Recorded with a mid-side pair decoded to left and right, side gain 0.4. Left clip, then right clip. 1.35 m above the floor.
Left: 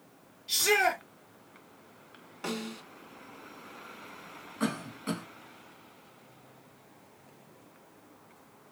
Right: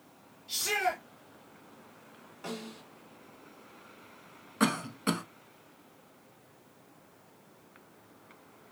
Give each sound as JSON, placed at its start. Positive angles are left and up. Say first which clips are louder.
{"t": 0.5, "sound": "a shout", "louder": "left 5 dB", "azimuth_deg": 65, "distance_m": 1.7}
{"t": 2.4, "sound": "a snare drum", "louder": "left 4 dB", "azimuth_deg": 65, "distance_m": 1.6}
{"t": 4.6, "sound": "a cough", "louder": "right 5 dB", "azimuth_deg": -70, "distance_m": 0.9}